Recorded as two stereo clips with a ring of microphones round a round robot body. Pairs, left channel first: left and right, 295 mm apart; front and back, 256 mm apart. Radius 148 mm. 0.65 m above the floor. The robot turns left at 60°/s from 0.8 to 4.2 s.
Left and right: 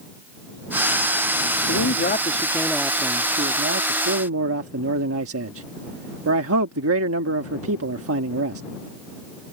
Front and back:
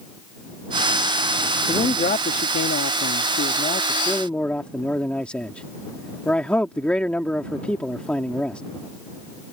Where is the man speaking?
65° left; by 8.6 s 85° right.